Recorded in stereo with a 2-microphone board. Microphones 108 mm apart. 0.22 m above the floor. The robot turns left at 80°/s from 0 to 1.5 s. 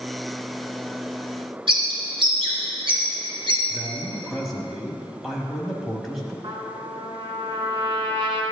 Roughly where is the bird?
Right.